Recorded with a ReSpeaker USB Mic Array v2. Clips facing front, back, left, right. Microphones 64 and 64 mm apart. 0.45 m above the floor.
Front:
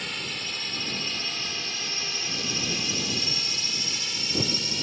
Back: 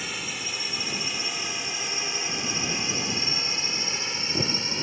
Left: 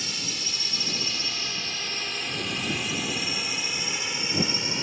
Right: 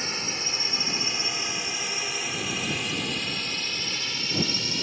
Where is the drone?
100° right; by 4.8 s 145° left.